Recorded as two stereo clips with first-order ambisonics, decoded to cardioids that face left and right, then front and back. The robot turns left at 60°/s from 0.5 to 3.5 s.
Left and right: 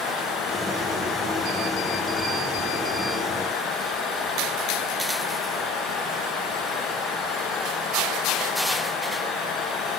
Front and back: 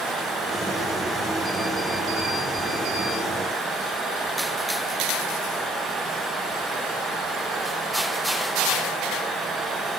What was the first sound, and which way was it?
Only background noise.